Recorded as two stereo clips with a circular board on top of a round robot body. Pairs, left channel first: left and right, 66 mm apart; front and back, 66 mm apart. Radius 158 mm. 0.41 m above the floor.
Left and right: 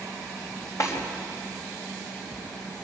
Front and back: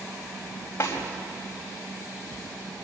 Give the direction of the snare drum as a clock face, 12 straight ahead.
10 o'clock.